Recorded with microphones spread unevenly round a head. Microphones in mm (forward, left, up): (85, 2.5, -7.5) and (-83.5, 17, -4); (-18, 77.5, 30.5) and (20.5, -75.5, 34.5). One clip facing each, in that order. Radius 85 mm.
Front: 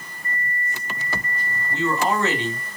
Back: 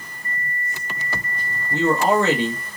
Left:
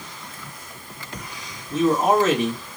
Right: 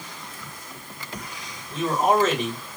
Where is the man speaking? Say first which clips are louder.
Back 5 dB, left 3 dB; 170° right, 1.6 m.